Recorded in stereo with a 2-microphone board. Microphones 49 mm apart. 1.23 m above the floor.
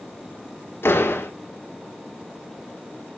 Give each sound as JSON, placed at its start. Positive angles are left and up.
{"t": 0.8, "sound": "a door slam", "side_deg": 55, "distance_m": 1.9}